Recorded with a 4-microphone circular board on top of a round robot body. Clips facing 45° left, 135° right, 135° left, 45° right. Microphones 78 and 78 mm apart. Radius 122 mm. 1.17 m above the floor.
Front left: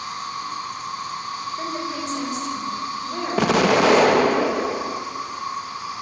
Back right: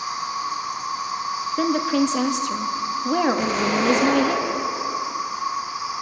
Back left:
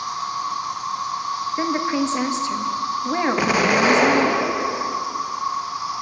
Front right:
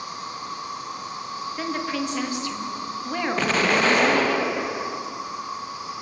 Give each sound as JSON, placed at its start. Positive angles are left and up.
{"t": 0.0, "sound": "an insect", "azimuth_deg": 145, "distance_m": 2.5}
{"t": 1.6, "sound": "a woman speaking", "azimuth_deg": -155, "distance_m": 2.5}
{"t": 3.4, "sound": "an explosion", "azimuth_deg": 55, "distance_m": 1.5}